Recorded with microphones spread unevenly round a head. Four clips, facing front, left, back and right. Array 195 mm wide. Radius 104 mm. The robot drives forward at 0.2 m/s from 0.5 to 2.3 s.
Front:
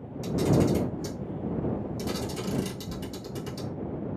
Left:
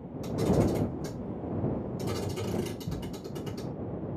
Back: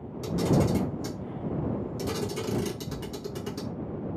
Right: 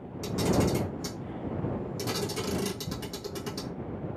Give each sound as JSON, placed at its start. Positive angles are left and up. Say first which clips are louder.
{"t": 0.2, "sound": "a camera shutter", "louder": "even, front 1 dB", "azimuth_deg": -100, "distance_m": 1.9}